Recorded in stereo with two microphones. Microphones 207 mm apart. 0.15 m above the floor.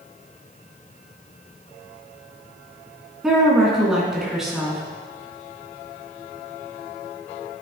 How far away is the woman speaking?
About 1.6 m.